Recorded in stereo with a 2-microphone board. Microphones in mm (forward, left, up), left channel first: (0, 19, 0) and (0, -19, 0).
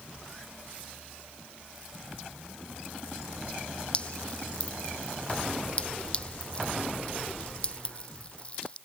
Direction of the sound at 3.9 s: 30° left (ahead or behind).